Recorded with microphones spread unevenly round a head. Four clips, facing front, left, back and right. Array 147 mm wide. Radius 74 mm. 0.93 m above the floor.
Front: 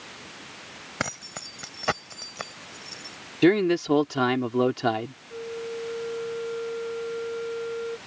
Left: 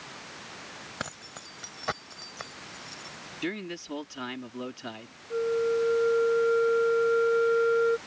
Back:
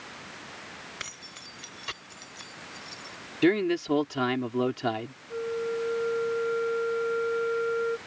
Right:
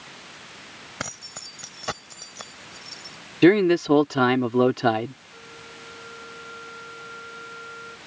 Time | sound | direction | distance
1.0 | keys jangling | 10° right | ?
3.4 | a man speaking | 75° right | ?
5.3 | a flute | 100° left | ?